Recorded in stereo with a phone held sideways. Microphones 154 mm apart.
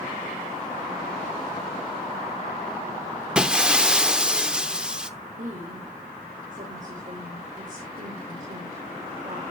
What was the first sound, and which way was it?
Breaking glass, 5° right (ahead or behind).